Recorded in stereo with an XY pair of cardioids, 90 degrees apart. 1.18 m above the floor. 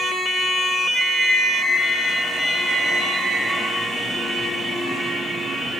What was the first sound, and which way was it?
A flute, 50° right.